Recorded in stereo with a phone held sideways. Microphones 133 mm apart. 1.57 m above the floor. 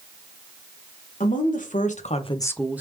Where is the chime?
No chime in this recording.